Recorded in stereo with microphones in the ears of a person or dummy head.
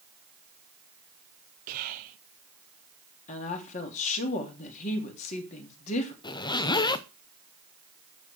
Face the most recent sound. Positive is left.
turn(degrees=25)  # may be behind; listen again after turning